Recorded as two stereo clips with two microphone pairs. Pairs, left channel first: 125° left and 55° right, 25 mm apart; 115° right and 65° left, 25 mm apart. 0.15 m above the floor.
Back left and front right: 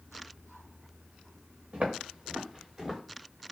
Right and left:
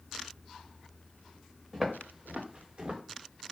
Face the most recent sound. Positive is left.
turn(degrees=25)